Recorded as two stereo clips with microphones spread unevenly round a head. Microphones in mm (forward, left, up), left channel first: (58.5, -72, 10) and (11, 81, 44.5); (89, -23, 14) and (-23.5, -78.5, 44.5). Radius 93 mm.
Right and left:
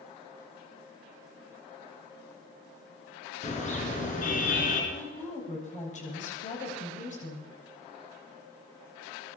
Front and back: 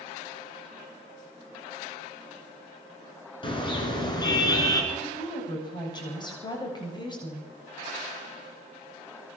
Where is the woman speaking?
30° right, 8 m.